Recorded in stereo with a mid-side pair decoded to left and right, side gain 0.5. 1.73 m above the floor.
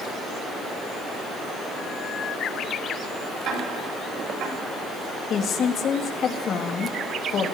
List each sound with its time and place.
3.5 s ticking: 70° right, 8.5 m
5.3 s a woman speaking: 55° left, 3 m